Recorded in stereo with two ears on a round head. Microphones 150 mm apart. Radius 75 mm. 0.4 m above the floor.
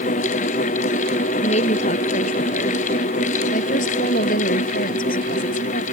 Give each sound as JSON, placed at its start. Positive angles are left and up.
{"t": 1.4, "sound": "a woman speaking", "side_deg": 40}